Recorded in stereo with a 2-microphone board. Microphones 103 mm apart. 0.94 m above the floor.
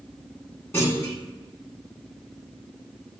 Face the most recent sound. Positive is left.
turn(degrees=25)  # may be behind; listen again after turning